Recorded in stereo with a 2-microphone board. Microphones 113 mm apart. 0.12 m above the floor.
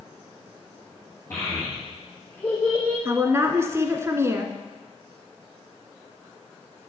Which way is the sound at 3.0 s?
25° right (ahead or behind).